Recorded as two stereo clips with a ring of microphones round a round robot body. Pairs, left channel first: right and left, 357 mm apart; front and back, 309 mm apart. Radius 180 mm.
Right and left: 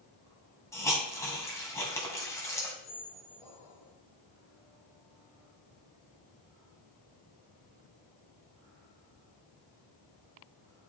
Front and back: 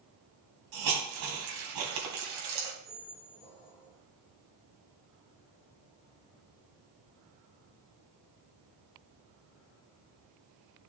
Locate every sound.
0.7 s a hiss: 170° right, 2.5 m
2.8 s a squeak: 75° right, 4 m